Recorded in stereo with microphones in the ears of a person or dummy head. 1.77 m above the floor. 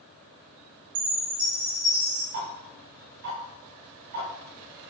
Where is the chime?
45° right (ahead or behind), 1.3 m.